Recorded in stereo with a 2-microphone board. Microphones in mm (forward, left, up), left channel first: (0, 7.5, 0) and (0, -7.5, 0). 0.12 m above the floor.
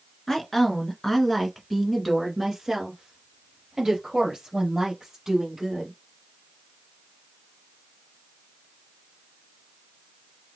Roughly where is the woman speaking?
Left.